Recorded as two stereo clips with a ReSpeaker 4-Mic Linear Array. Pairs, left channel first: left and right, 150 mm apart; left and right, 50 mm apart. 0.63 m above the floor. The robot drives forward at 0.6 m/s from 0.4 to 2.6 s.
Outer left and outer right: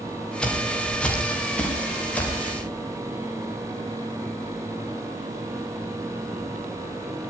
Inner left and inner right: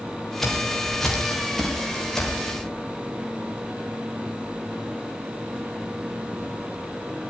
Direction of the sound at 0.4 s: 5° left (ahead or behind).